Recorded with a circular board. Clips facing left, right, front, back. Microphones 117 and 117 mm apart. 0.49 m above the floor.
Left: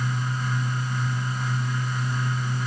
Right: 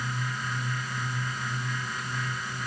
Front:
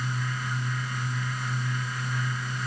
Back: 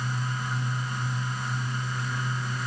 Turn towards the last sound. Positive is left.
No sound to turn to.